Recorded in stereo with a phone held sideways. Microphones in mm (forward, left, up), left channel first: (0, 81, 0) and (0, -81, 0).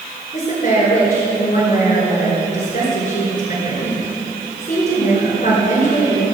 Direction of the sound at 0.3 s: 50° left (ahead or behind).